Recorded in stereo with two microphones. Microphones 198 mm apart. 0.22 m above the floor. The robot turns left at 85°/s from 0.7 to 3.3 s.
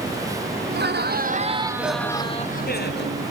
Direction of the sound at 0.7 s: 75° right.